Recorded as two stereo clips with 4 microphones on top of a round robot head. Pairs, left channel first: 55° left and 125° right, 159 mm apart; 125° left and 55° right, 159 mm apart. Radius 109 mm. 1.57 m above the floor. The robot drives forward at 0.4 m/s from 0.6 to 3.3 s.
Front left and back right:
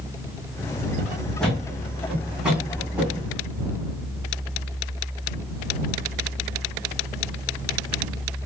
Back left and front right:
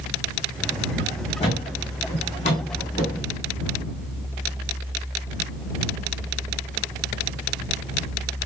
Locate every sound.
1.4 s a thud: 135° left, 1.5 m; by 3.3 s 160° left, 1.8 m